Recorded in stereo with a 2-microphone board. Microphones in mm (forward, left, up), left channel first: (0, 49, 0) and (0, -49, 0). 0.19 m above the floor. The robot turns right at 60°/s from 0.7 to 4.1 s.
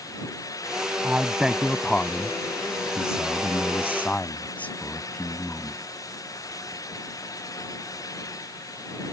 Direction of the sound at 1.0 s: 20° right (ahead or behind).